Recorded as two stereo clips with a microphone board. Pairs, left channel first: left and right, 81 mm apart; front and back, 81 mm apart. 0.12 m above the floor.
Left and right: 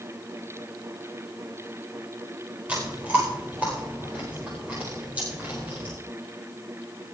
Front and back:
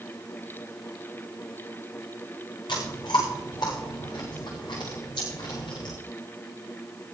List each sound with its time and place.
2.7 s chewing: 15° right, 8 m